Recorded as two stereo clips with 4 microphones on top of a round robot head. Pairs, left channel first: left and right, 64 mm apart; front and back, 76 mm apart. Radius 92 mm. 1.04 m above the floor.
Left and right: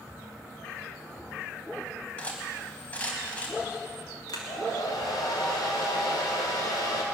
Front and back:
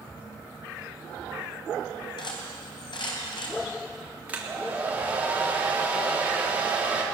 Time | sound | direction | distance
2.2 | cutlery clinking | 20° left | 4 m
4.3 | a hair dryer | 110° left | 3 m